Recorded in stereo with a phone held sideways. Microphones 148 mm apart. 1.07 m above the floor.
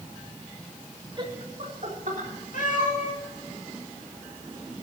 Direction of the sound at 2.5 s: 65° left (ahead or behind).